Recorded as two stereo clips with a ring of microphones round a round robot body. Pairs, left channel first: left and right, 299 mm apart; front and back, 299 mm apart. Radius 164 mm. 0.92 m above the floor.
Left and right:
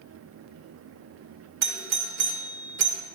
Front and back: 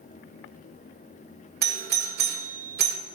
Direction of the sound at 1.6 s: 135° right.